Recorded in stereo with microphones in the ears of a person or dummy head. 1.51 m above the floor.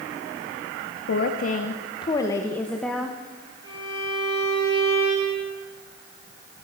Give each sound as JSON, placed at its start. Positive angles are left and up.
{"t": 1.1, "sound": "a woman speaking", "side_deg": 55, "distance_m": 1.0}
{"t": 3.6, "sound": "a violin", "side_deg": -25, "distance_m": 6.0}